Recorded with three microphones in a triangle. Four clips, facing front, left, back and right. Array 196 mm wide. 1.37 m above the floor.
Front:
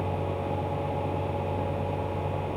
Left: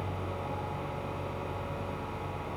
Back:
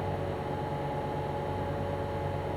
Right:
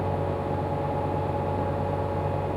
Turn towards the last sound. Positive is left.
No sound to turn to.